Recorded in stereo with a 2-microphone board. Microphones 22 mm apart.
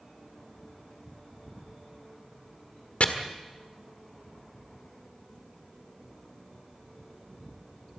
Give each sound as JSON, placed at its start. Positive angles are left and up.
{"t": 3.0, "sound": "chopping", "side_deg": 70, "distance_m": 1.6}